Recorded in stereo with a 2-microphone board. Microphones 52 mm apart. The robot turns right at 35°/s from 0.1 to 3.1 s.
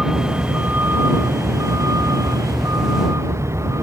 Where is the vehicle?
170° right; by 3.8 s 65° right.